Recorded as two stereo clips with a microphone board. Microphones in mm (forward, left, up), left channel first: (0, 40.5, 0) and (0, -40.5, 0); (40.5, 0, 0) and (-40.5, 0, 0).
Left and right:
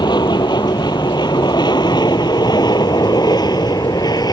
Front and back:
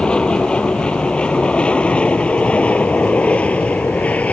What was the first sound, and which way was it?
An aircraft, 80° left.